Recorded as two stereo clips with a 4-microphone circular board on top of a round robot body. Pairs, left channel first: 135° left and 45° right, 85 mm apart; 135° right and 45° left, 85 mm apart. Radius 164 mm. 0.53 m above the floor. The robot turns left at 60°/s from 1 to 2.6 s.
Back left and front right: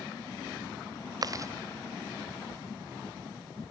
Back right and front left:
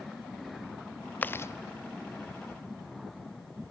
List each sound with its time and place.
1.2 s chewing: 70° right, 0.7 m; by 1.5 s 90° right, 0.7 m